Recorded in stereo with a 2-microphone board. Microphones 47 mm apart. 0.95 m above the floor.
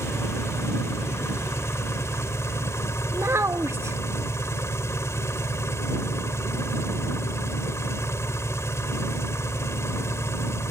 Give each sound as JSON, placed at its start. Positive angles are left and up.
{"t": 0.0, "sound": "an engine running", "side_deg": 85}
{"t": 3.1, "sound": "a child speaking", "side_deg": -75}